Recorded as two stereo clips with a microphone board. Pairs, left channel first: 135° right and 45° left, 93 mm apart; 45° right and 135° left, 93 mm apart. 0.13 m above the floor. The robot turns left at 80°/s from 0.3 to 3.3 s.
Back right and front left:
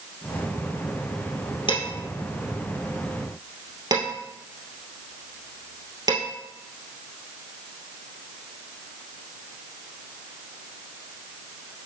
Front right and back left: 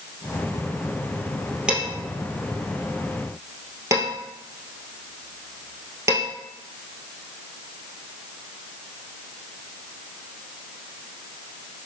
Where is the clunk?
I don't hear a clunk.